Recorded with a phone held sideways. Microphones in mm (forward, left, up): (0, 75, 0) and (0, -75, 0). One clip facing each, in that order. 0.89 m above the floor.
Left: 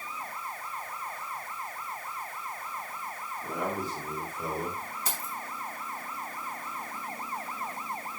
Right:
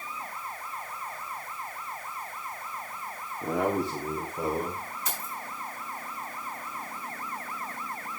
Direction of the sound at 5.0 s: 35° left (ahead or behind).